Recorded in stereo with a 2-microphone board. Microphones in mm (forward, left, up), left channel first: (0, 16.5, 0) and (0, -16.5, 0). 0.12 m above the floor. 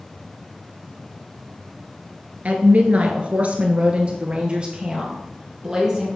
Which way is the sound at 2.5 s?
45° right (ahead or behind).